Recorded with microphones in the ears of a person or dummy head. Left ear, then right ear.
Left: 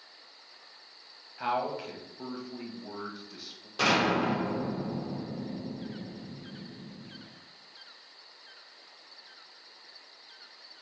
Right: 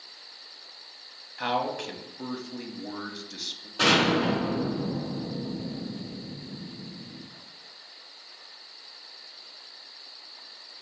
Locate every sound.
1.4 s a man speaking: centre (ahead or behind), 1.0 m
3.8 s an explosion: 75° left (ahead or behind), 2.5 m